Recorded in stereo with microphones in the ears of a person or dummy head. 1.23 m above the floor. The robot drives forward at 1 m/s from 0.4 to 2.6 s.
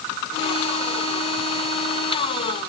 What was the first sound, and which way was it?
Only background noise.